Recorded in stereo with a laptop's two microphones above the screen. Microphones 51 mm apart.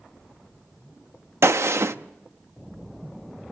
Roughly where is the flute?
No flute in this recording.